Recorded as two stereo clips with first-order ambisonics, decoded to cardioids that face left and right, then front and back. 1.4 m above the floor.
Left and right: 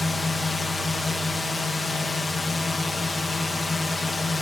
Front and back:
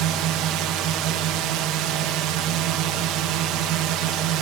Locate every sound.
0.0 s a drone: 170° left